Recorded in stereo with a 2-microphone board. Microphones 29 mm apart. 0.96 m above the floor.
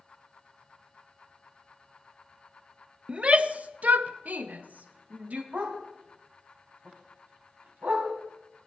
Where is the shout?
40° right (ahead or behind), 0.6 m; by 5.4 s 65° right (ahead or behind), 1.2 m.